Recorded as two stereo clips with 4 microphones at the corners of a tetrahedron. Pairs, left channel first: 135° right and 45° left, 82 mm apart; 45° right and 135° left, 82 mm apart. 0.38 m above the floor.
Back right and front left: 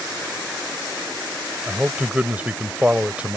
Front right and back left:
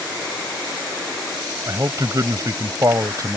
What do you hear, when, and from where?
1.7 s a man speaking: 115° left